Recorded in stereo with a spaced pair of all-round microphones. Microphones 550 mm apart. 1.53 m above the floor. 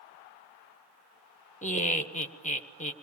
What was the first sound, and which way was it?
Laughter, 10° left (ahead or behind).